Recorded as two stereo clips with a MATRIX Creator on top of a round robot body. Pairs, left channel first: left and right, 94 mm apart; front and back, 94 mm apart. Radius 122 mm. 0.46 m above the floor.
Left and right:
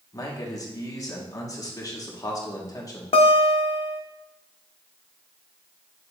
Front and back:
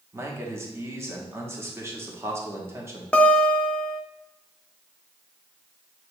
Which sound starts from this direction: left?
A guitar, at 3.1 s.